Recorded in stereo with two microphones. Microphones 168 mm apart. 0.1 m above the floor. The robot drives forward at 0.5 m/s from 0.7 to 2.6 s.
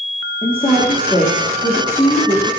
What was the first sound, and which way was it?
A woman speaking, 30° left (ahead or behind).